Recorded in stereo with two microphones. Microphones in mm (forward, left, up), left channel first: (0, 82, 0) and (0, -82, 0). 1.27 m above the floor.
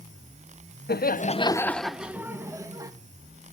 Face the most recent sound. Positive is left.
turn(degrees=-20)  # may be behind; listen again after turning